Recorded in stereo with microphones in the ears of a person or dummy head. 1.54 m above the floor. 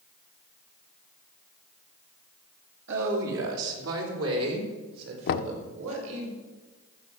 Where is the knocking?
60° left (ahead or behind), 0.5 m.